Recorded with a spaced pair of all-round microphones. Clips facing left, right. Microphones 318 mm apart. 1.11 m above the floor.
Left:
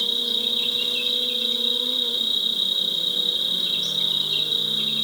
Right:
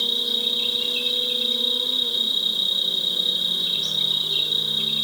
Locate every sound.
0.0 s an insect: 10° left (ahead or behind), 5 m